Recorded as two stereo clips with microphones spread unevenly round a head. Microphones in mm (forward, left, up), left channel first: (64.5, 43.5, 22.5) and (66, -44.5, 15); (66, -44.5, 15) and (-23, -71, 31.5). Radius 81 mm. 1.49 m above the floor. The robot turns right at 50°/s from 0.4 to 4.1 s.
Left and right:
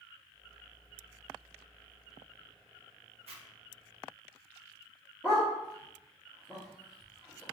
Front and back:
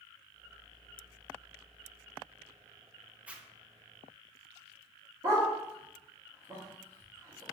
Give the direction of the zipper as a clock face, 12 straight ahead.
3 o'clock.